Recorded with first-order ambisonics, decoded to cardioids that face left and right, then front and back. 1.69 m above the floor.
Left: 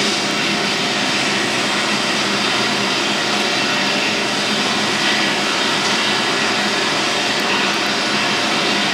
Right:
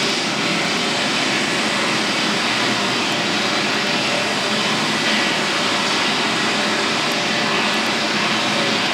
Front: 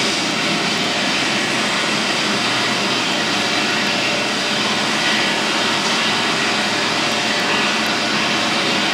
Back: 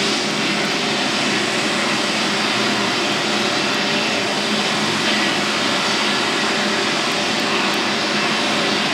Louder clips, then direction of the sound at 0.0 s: Left 2 dB, front 1 dB; 70° left.